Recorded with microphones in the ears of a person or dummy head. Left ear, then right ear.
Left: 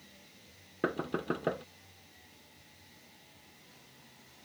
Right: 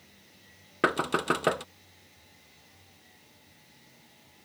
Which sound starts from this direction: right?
Knocking, at 0.8 s.